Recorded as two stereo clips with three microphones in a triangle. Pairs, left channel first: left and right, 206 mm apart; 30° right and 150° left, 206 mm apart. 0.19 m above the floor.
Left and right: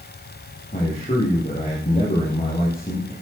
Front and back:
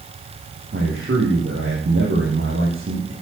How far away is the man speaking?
About 6 m.